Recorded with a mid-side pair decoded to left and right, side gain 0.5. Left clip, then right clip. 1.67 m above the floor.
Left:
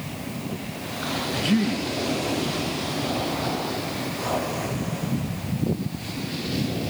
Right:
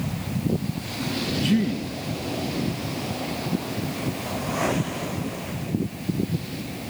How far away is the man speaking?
About 2 m.